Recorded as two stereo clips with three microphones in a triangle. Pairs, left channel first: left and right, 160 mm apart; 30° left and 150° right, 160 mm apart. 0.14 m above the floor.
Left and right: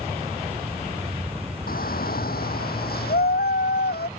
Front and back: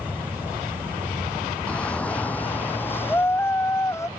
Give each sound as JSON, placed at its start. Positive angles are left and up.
{"t": 1.7, "sound": "a shout", "azimuth_deg": 115}